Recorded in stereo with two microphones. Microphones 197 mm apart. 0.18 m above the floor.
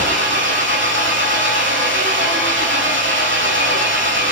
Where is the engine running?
75° right (ahead or behind), 6.5 m.